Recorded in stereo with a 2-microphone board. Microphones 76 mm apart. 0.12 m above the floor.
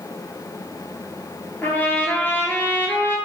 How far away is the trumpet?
About 0.8 m.